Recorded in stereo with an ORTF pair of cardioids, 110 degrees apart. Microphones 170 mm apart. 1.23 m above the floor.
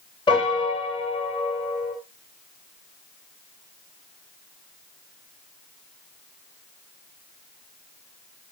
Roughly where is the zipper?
I don't hear a zipper.